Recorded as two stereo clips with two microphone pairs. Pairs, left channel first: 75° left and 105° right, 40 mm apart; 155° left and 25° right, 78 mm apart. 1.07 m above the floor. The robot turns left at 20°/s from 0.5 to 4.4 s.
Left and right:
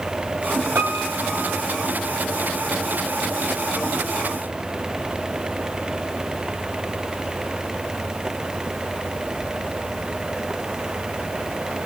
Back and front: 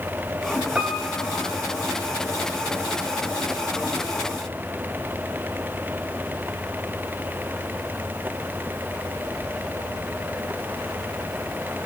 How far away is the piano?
About 2.5 m.